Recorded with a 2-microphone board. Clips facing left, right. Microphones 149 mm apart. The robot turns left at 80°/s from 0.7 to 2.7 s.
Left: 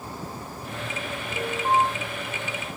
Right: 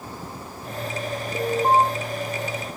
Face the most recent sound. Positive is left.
turn(degrees=160)